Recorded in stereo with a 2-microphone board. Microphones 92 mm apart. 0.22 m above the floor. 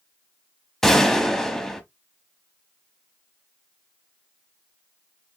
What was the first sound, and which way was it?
A gunshot, 5° left (ahead or behind).